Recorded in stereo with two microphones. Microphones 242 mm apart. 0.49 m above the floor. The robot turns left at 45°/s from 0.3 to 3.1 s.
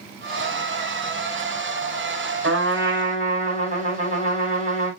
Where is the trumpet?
55° right (ahead or behind), 4.5 m; by 4.9 s 30° right (ahead or behind), 4.5 m.